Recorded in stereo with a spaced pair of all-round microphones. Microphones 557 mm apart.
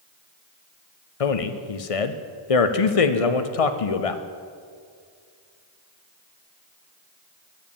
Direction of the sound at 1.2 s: 75° left (ahead or behind).